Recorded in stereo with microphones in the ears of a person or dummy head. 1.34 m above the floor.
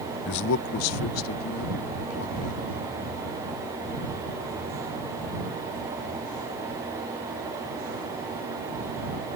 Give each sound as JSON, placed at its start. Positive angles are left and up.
{"t": 0.2, "sound": "a man speaking", "side_deg": 50}